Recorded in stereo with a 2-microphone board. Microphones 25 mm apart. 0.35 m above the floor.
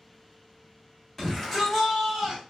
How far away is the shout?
About 1.7 m.